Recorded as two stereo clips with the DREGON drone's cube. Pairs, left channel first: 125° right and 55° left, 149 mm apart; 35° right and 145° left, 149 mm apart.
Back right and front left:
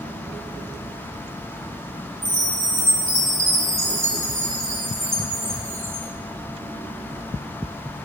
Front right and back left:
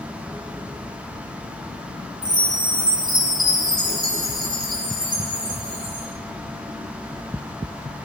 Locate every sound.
2.2 s a chime: 130° left, 3.5 m